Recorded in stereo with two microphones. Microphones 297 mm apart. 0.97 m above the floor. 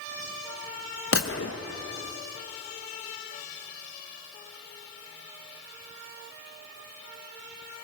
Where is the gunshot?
50° left (ahead or behind), 0.8 m.